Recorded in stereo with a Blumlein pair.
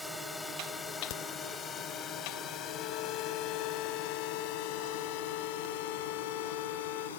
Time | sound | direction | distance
0.0 | a drone | 5° left | ?
1.1 | a crack | 50° left | ?
2.7 | a violin | 40° left | ?